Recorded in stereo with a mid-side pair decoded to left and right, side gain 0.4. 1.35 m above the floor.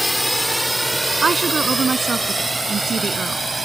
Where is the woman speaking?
40° right.